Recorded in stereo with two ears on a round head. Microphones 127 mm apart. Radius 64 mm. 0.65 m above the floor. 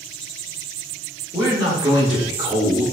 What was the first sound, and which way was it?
A man speaking, 10° right (ahead or behind).